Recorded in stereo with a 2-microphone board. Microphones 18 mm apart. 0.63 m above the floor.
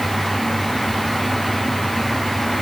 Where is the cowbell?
I don't hear a cowbell.